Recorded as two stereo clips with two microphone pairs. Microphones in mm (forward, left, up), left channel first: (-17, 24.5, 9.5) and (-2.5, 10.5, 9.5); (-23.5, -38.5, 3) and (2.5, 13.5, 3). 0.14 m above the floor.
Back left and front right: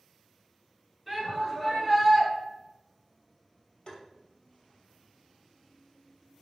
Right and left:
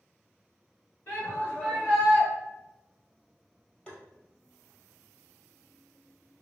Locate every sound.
1.1 s a shout: 110° right, 2.0 m; by 2.3 s 170° left, 1.7 m
3.9 s tapping: 175° left, 1.0 m